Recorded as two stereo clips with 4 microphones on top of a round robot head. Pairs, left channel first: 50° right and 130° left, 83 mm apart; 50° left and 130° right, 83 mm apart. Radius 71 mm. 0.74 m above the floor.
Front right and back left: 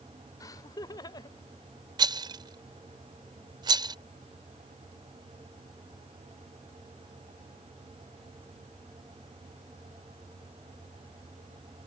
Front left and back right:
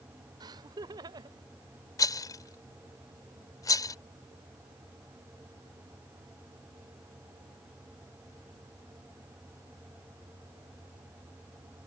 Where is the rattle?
95° left.